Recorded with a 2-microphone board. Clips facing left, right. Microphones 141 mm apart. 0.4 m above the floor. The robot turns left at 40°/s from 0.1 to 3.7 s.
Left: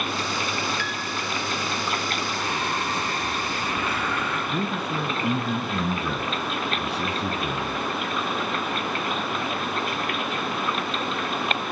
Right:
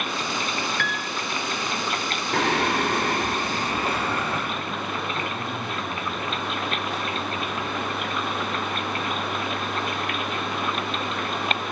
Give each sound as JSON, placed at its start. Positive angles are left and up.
{"t": 0.8, "sound": "a piano", "side_deg": -60, "distance_m": 2.5}
{"t": 2.3, "sound": "singing", "azimuth_deg": -90, "distance_m": 7.5}
{"t": 4.5, "sound": "a man speaking", "side_deg": 75, "distance_m": 3.5}